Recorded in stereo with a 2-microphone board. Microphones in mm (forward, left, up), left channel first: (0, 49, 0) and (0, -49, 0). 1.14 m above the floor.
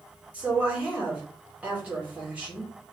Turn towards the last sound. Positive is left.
turn(degrees=-15)  # may be behind; listen again after turning